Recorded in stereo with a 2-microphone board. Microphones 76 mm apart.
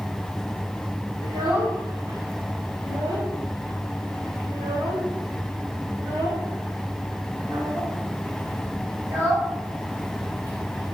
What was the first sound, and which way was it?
A child speaking, 70° right (ahead or behind).